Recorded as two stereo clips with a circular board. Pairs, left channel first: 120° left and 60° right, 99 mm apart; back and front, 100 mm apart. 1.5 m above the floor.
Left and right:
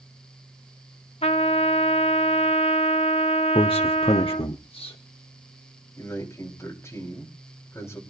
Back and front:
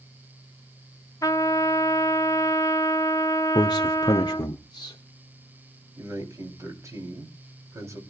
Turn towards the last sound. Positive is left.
turn(degrees=55)